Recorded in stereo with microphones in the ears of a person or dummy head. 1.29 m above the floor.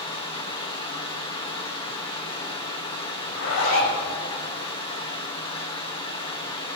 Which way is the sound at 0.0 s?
25° left (ahead or behind).